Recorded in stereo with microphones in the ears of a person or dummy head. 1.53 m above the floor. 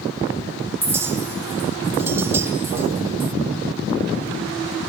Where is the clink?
15° right (ahead or behind), 0.5 m.